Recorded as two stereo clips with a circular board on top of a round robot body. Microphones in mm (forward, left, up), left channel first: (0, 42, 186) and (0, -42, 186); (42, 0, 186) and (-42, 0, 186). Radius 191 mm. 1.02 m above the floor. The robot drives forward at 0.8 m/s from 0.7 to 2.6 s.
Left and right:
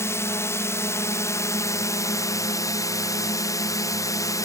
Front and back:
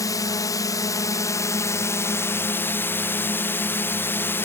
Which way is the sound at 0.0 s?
40° left.